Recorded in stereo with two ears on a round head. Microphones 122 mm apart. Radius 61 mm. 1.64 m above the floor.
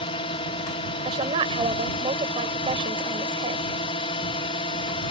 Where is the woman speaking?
35° right (ahead or behind).